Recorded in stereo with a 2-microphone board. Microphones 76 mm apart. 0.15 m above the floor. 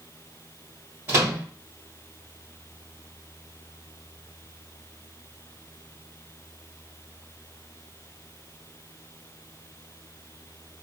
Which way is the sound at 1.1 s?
30° right (ahead or behind).